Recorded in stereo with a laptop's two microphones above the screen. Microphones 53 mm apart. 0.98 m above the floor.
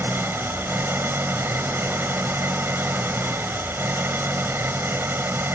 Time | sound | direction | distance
0.0 | an engine running | 45° right (ahead or behind) | ?